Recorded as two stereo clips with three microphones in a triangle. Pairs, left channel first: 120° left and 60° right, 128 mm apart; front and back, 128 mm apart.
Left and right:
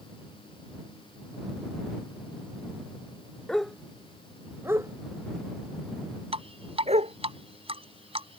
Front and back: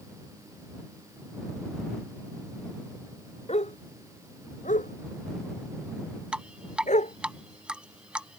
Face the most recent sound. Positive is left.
turn(degrees=-100)